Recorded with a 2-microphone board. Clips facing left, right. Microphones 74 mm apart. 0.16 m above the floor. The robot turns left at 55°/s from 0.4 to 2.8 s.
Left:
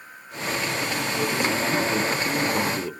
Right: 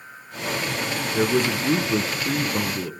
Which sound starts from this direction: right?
A man speaking, at 1.1 s.